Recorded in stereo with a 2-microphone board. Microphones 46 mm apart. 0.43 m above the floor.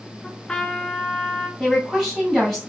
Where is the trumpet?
15° left (ahead or behind), 0.7 m.